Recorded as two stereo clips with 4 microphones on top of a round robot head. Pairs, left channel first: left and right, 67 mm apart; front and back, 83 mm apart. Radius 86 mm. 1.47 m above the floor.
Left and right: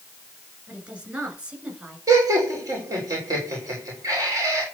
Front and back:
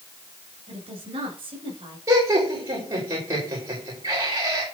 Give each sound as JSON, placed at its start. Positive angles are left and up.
{"t": 0.7, "sound": "a woman speaking", "azimuth_deg": -160, "distance_m": 7.5}
{"t": 2.1, "sound": "laughter", "azimuth_deg": -125, "distance_m": 5.0}